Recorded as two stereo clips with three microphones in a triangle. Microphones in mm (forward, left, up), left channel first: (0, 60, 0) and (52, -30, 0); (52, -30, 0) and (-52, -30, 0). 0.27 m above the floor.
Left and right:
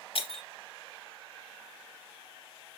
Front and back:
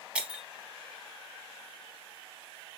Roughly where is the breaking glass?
Left.